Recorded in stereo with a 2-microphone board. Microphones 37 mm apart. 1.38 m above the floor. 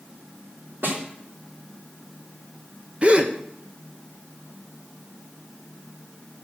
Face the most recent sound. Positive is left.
turn(degrees=-30)  # may be behind; listen again after turning